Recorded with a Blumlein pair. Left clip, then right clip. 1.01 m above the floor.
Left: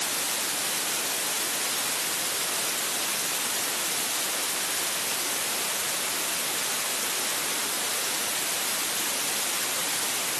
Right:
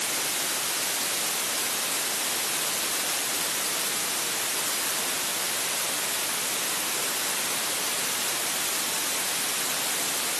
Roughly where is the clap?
No clap in this recording.